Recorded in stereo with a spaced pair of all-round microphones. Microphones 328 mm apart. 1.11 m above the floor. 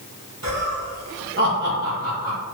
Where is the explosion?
I don't hear an explosion.